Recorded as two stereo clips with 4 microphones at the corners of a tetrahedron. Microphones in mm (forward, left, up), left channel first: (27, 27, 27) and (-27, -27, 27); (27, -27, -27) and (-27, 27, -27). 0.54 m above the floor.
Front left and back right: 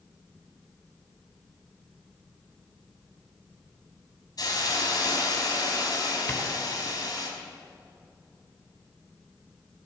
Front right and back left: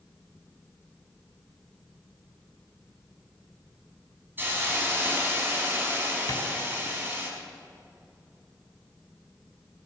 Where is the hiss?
75° left, 5 m.